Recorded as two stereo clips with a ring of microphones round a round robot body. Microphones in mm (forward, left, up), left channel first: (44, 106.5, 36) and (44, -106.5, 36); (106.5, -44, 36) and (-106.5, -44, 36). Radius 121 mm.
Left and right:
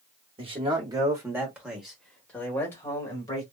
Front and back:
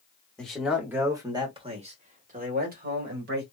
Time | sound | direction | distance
0.4 | a man speaking | 80° right | 1.4 m